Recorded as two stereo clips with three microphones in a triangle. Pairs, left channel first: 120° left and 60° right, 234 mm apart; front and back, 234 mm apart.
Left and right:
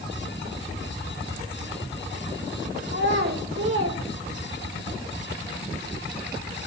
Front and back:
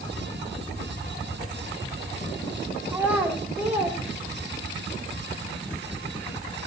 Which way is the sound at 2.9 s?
100° right.